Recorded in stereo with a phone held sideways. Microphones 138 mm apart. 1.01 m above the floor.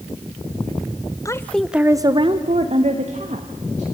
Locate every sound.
1.2 s a woman speaking: 25° left (ahead or behind), 0.8 m; by 3.9 s 60° right (ahead or behind), 2 m